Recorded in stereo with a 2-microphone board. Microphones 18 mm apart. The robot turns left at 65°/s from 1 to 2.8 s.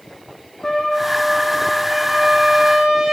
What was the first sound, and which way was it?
A trumpet, 55° left.